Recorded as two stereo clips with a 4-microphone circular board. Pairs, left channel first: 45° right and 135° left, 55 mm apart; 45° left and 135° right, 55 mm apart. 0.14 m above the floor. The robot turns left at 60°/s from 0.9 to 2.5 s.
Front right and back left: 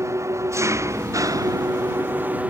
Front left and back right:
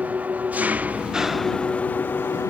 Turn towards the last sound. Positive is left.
turn(degrees=70)